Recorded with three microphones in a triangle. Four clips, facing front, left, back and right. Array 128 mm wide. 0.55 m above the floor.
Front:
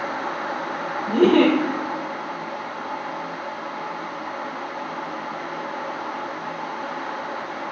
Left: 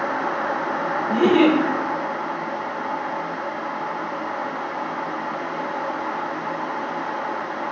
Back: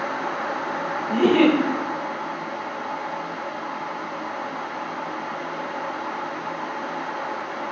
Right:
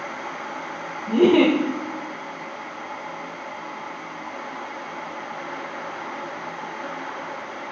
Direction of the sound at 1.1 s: 50° right.